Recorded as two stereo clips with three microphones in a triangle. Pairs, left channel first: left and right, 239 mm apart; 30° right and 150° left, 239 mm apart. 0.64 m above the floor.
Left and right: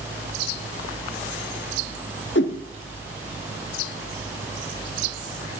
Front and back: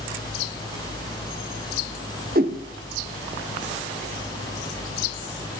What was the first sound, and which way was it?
A whoosh, 110° left.